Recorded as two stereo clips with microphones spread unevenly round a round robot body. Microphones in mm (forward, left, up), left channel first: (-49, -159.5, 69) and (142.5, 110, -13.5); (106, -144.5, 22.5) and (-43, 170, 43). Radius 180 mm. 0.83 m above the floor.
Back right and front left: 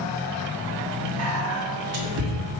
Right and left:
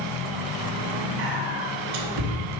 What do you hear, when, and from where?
1.2 s whispering: 90° left, 1.5 m